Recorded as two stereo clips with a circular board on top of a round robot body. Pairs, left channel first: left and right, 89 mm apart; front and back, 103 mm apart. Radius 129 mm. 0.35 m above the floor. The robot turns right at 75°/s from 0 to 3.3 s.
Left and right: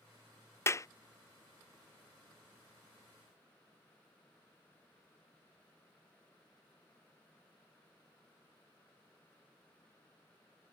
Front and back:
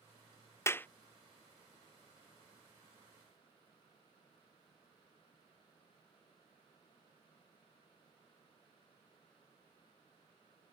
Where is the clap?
50° left; by 0.9 s 65° left.